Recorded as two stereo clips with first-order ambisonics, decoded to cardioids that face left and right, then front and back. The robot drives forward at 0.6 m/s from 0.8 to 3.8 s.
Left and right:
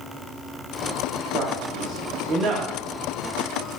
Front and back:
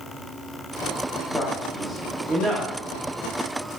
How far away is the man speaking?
About 1.1 m.